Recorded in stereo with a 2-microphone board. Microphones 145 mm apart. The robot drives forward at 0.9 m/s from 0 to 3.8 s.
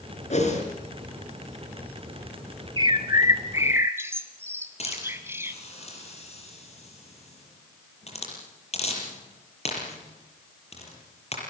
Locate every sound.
0.3 s a whoosh: 50° left (ahead or behind), 5 m; by 0.6 s 55° left (ahead or behind), 4.5 m
2.8 s a bird: 35° right (ahead or behind), 0.9 m; by 5.6 s 15° right (ahead or behind), 1.7 m
4.8 s a hiss: 45° left (ahead or behind), 6.5 m